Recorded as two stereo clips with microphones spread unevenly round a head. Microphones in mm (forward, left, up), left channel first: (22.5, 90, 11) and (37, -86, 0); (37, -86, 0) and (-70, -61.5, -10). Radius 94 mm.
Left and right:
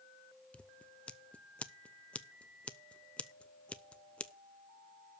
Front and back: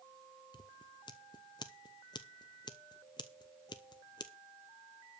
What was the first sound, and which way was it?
Scissors, 15° left.